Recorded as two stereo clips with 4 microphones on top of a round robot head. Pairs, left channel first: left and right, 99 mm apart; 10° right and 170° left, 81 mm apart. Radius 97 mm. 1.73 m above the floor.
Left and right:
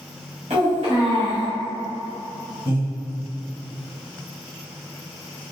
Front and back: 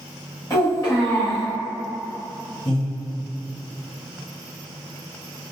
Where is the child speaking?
75° right, 1.3 m.